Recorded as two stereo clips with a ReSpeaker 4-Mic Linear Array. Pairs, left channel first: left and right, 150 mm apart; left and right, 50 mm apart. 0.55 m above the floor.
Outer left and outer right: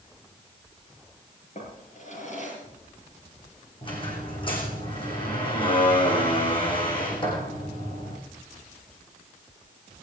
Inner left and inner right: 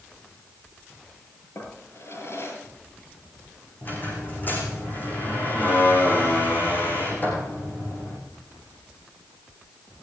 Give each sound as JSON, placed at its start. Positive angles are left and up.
{"t": 1.6, "sound": "a drawer", "side_deg": 55, "distance_m": 7.5}
{"t": 3.8, "sound": "a squeak", "side_deg": 35, "distance_m": 6.5}